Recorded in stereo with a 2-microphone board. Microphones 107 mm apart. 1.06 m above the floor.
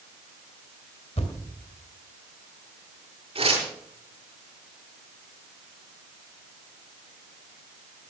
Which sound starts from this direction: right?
Tearing paper, at 3.4 s.